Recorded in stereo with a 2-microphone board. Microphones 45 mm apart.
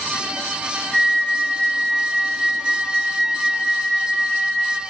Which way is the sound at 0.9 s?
Centre (ahead or behind).